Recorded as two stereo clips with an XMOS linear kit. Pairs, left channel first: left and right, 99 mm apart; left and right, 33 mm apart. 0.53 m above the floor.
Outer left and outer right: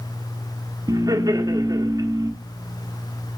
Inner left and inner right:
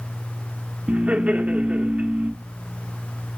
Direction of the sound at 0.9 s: 40° right (ahead or behind).